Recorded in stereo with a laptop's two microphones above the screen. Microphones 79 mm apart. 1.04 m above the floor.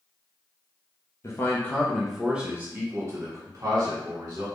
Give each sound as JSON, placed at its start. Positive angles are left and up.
{"t": 1.2, "sound": "a man speaking", "side_deg": 35, "distance_m": 0.7}